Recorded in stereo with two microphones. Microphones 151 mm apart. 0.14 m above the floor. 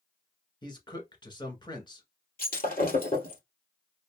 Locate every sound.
0.6 s a man speaking: 30° left (ahead or behind), 1.4 m
2.4 s breaking glass: 75° left (ahead or behind), 2.0 m